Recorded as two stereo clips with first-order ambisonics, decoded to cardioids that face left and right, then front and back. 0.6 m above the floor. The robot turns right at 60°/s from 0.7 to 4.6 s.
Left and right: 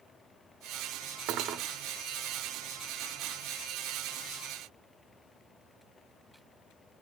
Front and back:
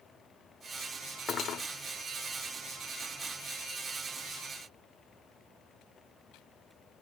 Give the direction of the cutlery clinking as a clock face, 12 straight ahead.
2 o'clock.